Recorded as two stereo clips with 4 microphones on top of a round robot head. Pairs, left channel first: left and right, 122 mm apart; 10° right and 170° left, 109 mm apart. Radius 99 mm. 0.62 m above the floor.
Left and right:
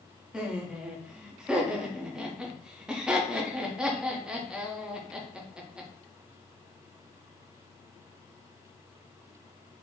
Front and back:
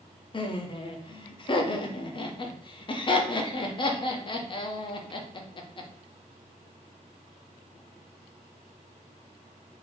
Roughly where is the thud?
I don't hear a thud.